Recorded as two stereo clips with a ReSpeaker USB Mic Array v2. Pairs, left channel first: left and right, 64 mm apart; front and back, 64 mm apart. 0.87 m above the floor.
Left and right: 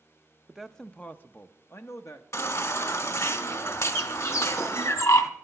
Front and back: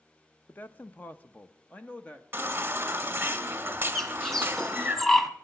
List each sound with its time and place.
0.5 s a man speaking: 10° right, 0.5 m; by 2.2 s 65° left, 1.0 m
2.3 s a baby crying: 120° left, 1.6 m
4.0 s a bird: 85° left, 1.0 m